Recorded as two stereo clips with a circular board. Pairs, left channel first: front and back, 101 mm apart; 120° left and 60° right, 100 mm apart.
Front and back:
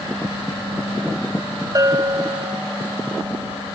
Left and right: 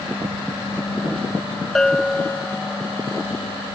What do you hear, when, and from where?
1.8 s a bell: 160° right